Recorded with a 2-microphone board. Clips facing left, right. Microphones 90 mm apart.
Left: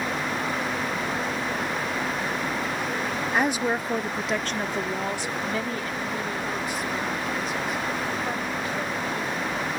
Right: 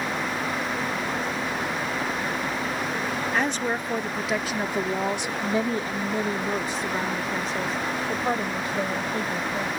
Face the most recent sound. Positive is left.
turn(degrees=-35)  # may be behind; listen again after turning